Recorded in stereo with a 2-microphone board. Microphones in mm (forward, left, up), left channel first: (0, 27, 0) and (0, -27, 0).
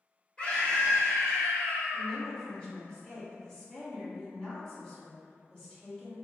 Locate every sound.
0.4 s a scream: 20° left (ahead or behind), 1.6 m
1.9 s a woman speaking: 20° left (ahead or behind), 1.4 m